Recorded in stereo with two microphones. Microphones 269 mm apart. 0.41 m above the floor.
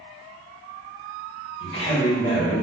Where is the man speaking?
20° left (ahead or behind), 1.3 m.